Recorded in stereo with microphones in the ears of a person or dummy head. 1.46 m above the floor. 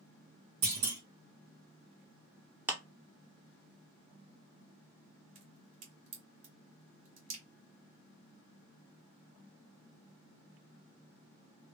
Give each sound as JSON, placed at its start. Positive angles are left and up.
{"t": 0.6, "sound": "a clunk", "side_deg": -30, "distance_m": 1.4}
{"t": 2.7, "sound": "a clap", "side_deg": -15, "distance_m": 0.6}
{"t": 5.3, "sound": "a crack", "side_deg": -40, "distance_m": 1.3}